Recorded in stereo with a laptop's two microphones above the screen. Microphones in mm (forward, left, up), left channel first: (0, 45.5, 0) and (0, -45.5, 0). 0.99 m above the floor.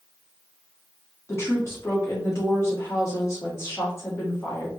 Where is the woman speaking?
30° left (ahead or behind), 1.4 m.